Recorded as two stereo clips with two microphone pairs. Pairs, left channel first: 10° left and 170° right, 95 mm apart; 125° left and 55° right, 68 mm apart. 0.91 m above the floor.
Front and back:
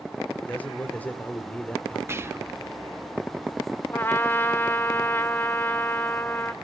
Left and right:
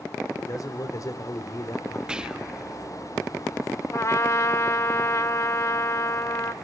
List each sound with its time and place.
0.4 s a man speaking: 85° left, 2.5 m
2.1 s whispering: 130° right, 1.0 m
3.9 s a trumpet: 80° left, 1.1 m